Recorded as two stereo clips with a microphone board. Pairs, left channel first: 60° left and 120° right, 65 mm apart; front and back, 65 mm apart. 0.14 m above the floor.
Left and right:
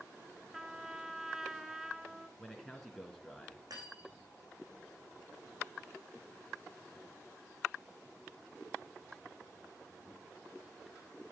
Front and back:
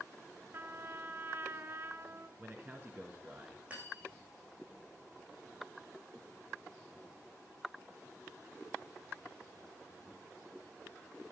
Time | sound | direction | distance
0.5 | a trumpet | 160° left | 1.0 m
2.4 | a man speaking | 140° left | 1.7 m
3.7 | cutlery clinking | 110° right | 6 m